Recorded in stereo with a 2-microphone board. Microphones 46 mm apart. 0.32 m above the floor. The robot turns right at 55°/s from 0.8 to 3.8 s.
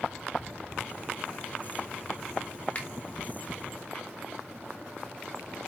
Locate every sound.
2.8 s a finger snap: 30° left (ahead or behind), 1.1 m